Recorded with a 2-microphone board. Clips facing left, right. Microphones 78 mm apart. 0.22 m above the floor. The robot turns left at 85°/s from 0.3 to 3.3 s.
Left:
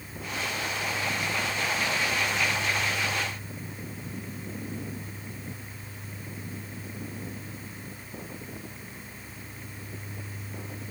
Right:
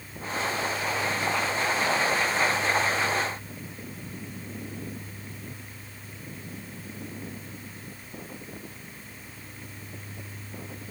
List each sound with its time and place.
Only background noise.